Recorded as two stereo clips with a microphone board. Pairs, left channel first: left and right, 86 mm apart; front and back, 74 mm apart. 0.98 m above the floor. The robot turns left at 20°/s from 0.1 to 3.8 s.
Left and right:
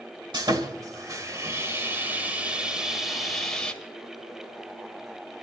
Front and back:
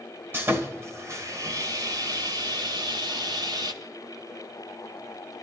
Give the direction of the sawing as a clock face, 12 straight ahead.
4 o'clock.